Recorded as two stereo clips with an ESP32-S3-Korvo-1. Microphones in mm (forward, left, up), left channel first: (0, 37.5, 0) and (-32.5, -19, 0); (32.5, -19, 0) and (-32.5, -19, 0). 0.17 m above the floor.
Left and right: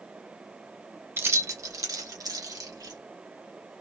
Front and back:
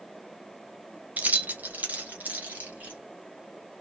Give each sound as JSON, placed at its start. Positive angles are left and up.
{"t": 1.2, "sound": "keys jangling", "azimuth_deg": -130, "distance_m": 0.8}